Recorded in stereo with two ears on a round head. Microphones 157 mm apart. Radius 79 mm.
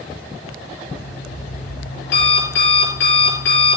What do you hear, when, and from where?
0.8 s an alarm clock: 75° left (ahead or behind), 4 m